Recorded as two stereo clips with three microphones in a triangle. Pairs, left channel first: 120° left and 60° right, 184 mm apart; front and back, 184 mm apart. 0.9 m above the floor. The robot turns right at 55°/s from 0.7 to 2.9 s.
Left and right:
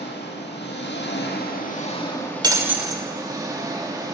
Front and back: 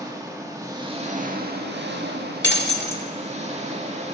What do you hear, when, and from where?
0.0 s an engine running: 110° left, 1.7 m; by 4.1 s 130° right, 1.7 m
2.4 s breaking glass: 5° left, 1.1 m; by 3.0 s 30° left, 1.1 m